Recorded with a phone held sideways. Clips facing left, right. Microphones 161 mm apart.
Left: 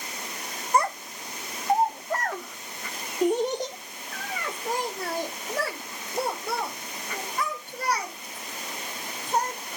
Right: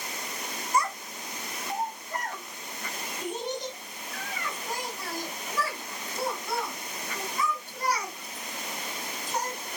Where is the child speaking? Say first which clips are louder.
Left 4 dB; 55° left (ahead or behind), 0.7 m.